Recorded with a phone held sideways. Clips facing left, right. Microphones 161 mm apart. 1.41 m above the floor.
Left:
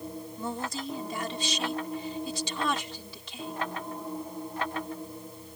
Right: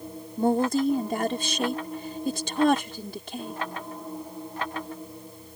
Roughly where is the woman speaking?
Right.